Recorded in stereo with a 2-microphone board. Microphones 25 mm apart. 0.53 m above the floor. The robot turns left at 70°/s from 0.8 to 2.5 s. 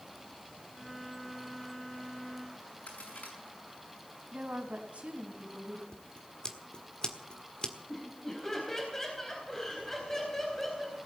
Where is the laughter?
15° left (ahead or behind), 4 m.